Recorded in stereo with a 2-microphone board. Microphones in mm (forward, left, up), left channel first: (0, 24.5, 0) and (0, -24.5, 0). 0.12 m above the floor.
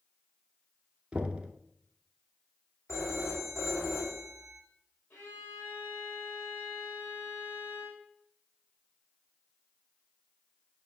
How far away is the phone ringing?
About 4.5 m.